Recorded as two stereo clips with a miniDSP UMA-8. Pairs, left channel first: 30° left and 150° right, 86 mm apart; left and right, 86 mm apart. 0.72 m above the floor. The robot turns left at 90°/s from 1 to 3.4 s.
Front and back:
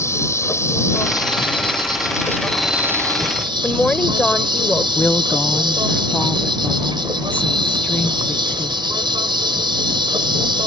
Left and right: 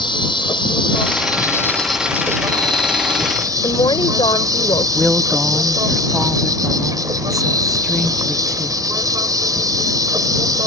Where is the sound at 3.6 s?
110° left.